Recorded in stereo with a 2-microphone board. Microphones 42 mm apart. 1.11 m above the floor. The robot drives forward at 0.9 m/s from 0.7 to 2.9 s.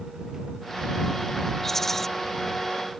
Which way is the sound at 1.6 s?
10° left (ahead or behind).